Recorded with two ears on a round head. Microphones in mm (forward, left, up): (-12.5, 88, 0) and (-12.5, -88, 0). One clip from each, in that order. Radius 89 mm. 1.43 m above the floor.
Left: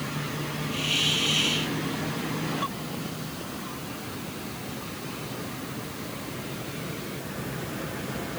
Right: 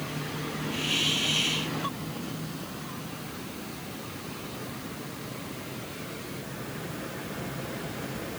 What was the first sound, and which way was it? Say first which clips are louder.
A hiss: left 2 dB; 5° right (ahead or behind).